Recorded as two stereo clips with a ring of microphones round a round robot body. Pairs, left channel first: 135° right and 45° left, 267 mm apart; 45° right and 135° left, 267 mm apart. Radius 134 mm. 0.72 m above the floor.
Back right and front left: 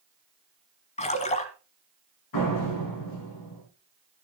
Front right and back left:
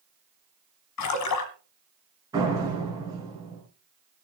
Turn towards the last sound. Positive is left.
turn(degrees=-150)